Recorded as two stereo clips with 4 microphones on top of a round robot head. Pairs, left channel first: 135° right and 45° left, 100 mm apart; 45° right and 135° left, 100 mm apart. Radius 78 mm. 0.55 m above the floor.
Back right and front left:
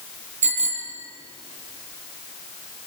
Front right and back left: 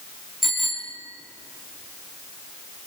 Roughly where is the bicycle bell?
Ahead left.